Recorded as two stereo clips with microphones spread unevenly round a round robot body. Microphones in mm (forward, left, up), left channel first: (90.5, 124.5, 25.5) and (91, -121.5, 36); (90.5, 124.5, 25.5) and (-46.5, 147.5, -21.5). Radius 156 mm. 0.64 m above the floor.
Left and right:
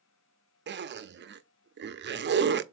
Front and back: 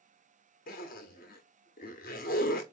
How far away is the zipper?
About 0.6 m.